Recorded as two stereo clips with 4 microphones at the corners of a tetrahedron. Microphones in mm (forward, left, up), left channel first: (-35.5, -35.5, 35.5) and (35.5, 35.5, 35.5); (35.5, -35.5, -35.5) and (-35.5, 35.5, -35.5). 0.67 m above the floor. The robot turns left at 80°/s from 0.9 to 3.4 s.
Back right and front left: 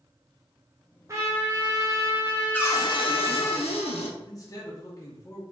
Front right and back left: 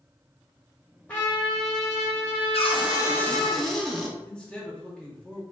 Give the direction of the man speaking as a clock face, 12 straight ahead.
4 o'clock.